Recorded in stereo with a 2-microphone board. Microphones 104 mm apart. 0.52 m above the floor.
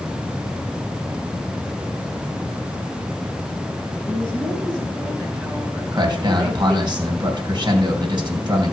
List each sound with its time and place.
4.1 s a woman speaking: 5° left (ahead or behind), 8.5 m; by 6.9 s 5° right (ahead or behind), 10 m
5.9 s a man speaking: 40° right (ahead or behind), 3 m